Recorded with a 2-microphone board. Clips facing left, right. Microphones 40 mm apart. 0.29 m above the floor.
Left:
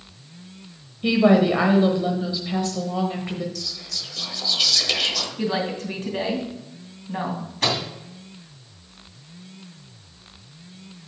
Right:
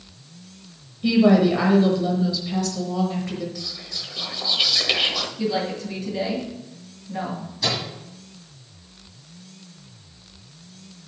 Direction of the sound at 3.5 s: 20° right (ahead or behind).